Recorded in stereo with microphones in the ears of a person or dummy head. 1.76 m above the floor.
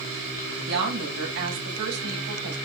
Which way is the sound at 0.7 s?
80° right.